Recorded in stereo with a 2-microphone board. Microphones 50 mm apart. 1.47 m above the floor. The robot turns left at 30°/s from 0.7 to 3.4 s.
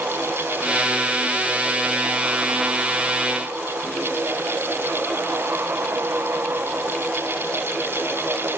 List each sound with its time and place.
Only background noise.